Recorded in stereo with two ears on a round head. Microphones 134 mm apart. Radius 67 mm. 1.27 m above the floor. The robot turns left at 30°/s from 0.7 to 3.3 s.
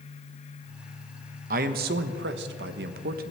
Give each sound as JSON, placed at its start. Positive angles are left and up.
{"t": 1.5, "sound": "a man speaking", "azimuth_deg": -60, "distance_m": 0.9}